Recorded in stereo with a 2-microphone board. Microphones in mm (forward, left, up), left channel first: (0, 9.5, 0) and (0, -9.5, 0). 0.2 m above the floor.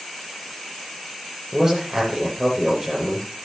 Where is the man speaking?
30° right (ahead or behind), 6 m.